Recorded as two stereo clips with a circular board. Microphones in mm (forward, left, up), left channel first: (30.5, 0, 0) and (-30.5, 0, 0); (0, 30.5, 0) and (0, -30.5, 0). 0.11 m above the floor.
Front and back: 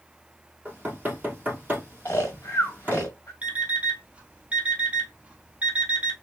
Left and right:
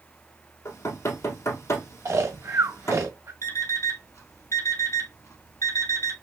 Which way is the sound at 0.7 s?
120° left.